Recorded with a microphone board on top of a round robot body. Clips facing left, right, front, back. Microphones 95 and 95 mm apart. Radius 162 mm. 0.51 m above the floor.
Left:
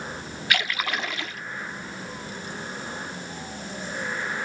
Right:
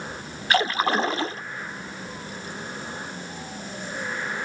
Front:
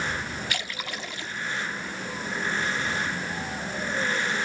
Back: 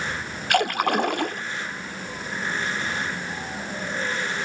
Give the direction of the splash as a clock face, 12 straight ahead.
5 o'clock.